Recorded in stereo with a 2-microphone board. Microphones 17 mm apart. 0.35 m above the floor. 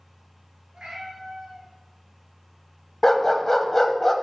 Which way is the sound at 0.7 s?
80° right.